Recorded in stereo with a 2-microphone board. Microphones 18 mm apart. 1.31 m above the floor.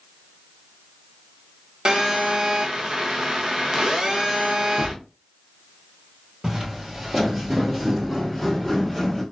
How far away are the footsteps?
About 1.6 m.